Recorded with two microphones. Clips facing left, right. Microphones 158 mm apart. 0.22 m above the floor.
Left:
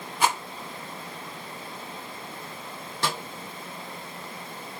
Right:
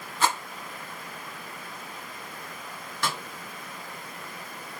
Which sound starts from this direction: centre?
A rattle, at 0.2 s.